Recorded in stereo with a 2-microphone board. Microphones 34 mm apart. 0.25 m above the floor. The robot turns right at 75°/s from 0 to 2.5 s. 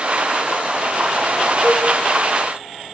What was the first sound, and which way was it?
A cowbell, 60° left (ahead or behind).